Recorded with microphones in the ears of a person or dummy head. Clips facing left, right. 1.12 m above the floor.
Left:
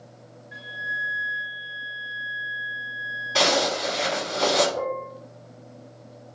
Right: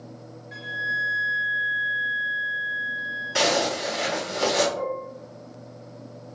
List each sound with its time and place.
0.5 s a flute: 35° right (ahead or behind), 0.5 m
3.4 s a zipper: 15° right (ahead or behind), 1.3 m
4.8 s dishes clattering: 50° left (ahead or behind), 0.5 m